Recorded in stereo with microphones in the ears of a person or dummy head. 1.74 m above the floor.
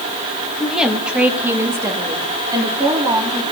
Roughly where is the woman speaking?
Centre.